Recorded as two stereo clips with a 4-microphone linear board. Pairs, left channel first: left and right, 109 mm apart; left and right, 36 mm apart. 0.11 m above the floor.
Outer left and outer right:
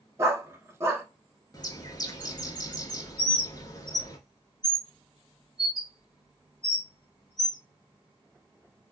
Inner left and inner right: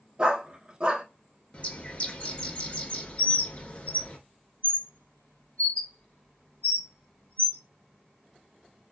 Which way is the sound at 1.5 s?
35° left (ahead or behind).